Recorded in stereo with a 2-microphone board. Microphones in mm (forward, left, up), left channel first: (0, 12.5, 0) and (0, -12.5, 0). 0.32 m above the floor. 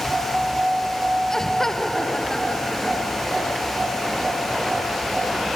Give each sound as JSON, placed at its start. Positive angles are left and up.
{"t": 1.3, "sound": "laughter", "side_deg": 20}